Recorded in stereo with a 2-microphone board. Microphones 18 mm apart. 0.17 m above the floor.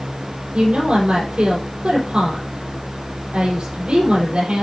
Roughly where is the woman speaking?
Right.